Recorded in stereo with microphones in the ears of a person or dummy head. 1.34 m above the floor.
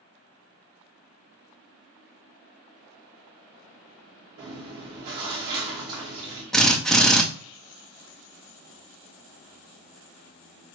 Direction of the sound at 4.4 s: 25° right (ahead or behind).